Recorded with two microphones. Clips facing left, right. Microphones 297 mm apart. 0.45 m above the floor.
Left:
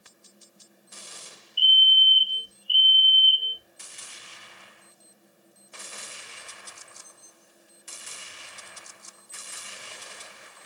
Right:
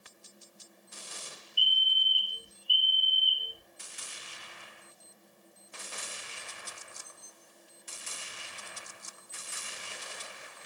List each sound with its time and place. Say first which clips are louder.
1.6 s a fire alarm: left 7 dB; centre (ahead or behind), 1.9 m